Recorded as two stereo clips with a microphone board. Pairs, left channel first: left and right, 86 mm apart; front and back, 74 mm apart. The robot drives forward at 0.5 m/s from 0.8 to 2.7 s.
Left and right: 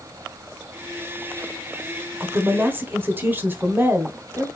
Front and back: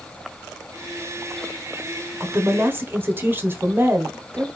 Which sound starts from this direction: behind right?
A woman speaking, at 2.2 s.